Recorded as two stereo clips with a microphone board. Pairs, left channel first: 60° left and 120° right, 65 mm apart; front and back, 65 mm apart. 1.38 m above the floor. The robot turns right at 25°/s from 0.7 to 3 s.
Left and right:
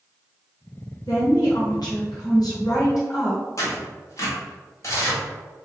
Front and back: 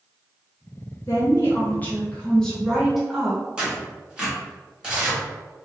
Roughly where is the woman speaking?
Ahead left.